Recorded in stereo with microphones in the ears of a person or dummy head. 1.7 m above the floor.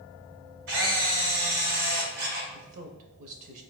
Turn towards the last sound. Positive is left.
turn(degrees=-45)  # may be behind; listen again after turning